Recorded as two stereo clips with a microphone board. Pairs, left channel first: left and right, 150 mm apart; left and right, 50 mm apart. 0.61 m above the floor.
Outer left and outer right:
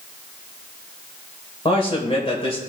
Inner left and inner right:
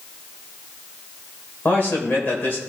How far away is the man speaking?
About 2 m.